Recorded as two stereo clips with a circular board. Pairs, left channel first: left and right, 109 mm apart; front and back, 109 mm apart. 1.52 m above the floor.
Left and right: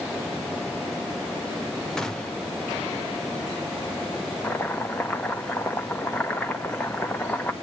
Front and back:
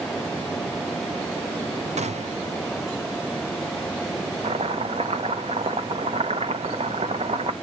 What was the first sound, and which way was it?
A gunshot, 175° left.